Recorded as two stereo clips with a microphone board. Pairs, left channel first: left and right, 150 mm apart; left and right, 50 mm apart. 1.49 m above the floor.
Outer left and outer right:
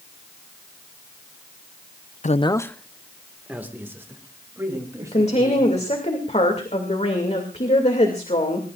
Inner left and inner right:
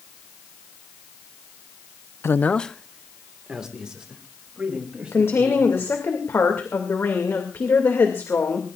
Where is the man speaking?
55° left (ahead or behind), 0.5 m; by 5.9 s 25° right (ahead or behind), 4.5 m.